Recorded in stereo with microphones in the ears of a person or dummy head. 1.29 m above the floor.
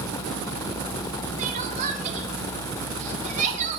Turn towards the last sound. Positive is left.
turn(degrees=-40)  # may be behind; listen again after turning